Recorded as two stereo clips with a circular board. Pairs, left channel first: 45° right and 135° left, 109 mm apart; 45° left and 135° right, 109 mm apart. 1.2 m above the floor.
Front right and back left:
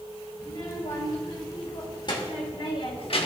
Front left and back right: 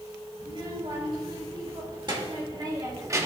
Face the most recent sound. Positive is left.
turn(degrees=-70)